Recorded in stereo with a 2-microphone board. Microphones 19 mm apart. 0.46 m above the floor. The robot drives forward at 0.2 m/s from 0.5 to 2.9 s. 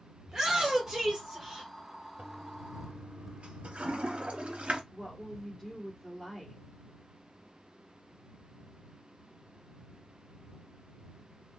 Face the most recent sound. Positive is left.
turn(degrees=-10)  # may be behind; listen again after turning